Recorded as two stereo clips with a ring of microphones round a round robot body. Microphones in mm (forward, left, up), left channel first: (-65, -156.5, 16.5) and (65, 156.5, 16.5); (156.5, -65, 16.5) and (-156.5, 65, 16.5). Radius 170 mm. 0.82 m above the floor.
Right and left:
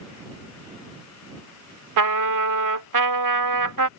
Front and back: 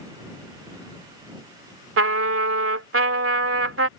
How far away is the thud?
I don't hear a thud.